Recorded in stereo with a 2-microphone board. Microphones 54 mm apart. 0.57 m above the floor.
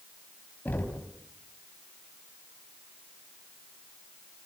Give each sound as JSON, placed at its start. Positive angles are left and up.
{"t": 0.7, "sound": "knocking", "side_deg": 30, "distance_m": 3.0}